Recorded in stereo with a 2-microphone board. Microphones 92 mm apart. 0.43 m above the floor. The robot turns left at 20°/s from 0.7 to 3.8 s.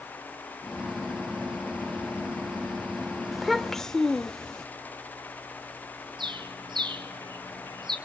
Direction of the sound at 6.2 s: 55° right (ahead or behind).